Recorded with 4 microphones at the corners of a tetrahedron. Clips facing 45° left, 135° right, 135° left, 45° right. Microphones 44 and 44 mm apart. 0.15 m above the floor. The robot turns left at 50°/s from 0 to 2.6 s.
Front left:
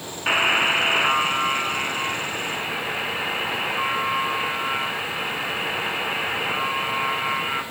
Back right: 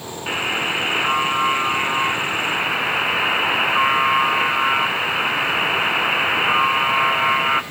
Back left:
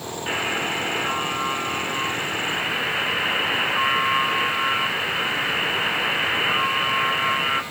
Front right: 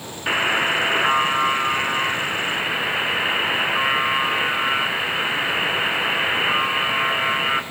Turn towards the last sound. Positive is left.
turn(degrees=-120)